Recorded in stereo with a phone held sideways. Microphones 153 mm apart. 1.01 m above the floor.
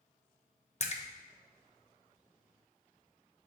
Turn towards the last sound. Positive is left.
turn(degrees=50)  # may be behind; listen again after turning